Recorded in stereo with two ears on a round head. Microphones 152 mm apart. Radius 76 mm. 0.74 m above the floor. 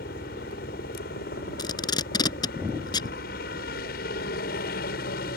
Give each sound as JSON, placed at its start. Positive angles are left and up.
{"t": 0.0, "sound": "a helicopter", "side_deg": 60}
{"t": 1.6, "sound": "tape being pulled", "side_deg": 25}